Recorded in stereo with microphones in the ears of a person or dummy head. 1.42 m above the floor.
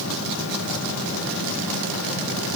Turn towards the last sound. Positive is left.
No sound to turn to.